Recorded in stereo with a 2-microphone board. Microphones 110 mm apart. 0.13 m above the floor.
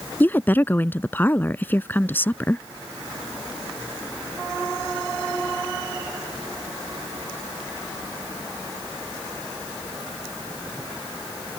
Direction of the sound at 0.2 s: 20° left (ahead or behind).